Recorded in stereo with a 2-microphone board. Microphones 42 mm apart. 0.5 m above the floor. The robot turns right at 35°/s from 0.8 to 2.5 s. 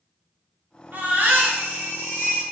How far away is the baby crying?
About 2 m.